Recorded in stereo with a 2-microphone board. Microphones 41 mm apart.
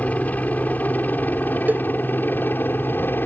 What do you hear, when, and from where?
0.0 s a helicopter: 40° left (ahead or behind); by 3.3 s 60° left (ahead or behind)
1.7 s a cowbell: 50° right (ahead or behind)